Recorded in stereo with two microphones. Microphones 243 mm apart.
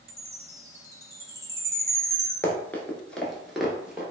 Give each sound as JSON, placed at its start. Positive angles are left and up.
{"t": 0.1, "sound": "a chime", "side_deg": -10, "distance_m": 0.5}
{"t": 2.4, "sound": "running footsteps", "side_deg": 10, "distance_m": 0.6}